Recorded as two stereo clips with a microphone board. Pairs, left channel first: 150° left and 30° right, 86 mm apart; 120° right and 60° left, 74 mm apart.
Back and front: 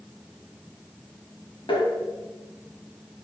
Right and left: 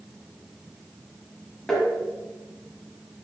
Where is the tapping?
160° left, 1.8 m.